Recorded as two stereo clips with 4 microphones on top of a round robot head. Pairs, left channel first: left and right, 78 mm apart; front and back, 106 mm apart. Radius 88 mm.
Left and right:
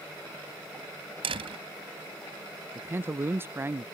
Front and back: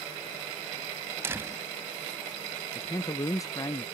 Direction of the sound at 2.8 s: 40° right.